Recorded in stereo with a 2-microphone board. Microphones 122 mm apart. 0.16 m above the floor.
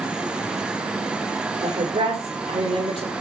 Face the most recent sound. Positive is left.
turn(degrees=-55)  # may be behind; listen again after turning